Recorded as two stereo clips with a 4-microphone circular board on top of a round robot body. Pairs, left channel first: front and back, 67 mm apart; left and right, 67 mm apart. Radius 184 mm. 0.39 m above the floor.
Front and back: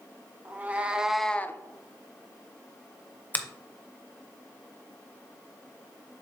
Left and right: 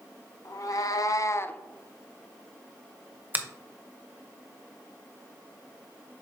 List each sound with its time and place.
0.5 s a cat meowing: 120° left, 1.3 m; by 1.6 s 25° left, 0.6 m
3.3 s a finger snap: 45° right, 0.9 m